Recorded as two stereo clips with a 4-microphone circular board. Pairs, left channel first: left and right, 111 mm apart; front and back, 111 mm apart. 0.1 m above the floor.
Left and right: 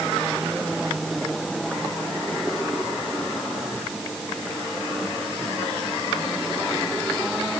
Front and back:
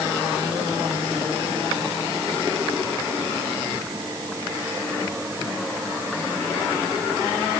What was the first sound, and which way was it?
Only background noise.